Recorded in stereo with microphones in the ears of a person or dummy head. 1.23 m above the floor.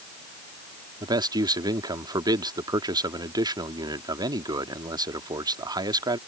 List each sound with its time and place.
1.0 s a man speaking: 25° right (ahead or behind)